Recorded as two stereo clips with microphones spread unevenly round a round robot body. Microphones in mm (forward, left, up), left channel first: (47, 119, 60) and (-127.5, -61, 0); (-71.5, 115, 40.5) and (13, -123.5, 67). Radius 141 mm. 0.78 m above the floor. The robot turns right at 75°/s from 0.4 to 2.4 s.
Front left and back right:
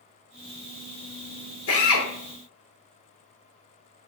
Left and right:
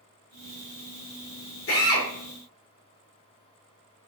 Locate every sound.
1.7 s a drill: 75° left, 2.0 m; by 2.1 s 105° left, 2.0 m